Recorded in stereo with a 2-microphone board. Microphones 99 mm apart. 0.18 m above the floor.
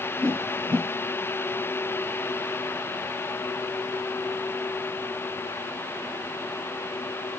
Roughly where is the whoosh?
Centre.